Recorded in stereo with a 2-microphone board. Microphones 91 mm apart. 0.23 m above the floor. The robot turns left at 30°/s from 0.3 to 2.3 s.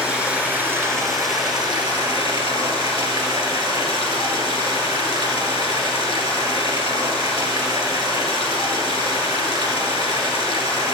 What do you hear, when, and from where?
0.0 s running water: 15° right, 1.5 m; by 10.9 s 75° right, 1.5 m